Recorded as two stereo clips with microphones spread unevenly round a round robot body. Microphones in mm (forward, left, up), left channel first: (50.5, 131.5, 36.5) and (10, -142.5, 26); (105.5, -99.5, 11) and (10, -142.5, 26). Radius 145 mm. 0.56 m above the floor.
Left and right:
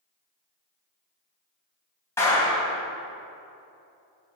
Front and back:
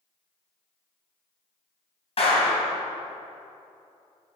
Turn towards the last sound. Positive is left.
turn(degrees=0)